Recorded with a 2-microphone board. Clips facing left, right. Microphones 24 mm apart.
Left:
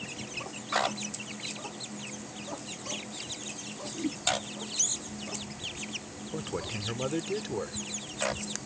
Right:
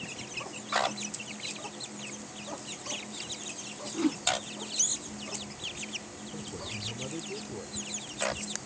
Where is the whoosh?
70° right (ahead or behind).